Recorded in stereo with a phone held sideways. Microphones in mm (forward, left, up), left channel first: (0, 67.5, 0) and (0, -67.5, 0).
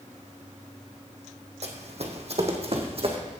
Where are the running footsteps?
55° right (ahead or behind), 1.5 m; by 3.2 s 45° right (ahead or behind), 1.9 m.